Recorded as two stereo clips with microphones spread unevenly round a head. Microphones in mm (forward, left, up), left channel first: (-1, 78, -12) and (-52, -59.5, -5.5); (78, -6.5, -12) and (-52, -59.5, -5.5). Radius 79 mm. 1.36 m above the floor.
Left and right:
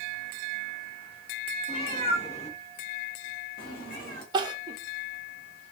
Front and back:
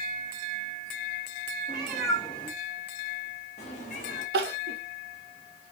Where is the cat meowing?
125° left, 1.2 m; by 4.2 s 45° left, 1.2 m.